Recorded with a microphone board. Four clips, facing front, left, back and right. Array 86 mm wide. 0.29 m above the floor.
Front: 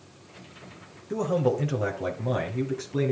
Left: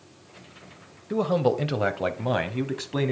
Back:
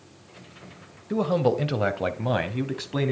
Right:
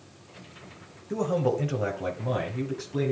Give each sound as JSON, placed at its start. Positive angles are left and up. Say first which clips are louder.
{"t": 1.1, "sound": "a man speaking", "louder": "left 3 dB, back 2 dB", "azimuth_deg": 130, "distance_m": 1.2}